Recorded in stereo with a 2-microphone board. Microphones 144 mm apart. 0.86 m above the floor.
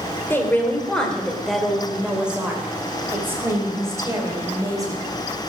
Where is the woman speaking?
15° left (ahead or behind), 2.5 m; by 5.0 s 25° right (ahead or behind), 4.5 m.